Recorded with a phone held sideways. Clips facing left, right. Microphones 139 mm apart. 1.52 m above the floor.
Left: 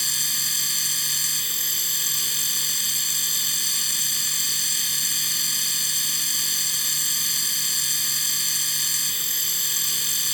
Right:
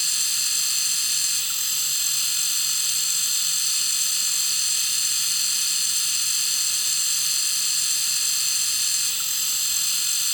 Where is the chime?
I don't hear a chime.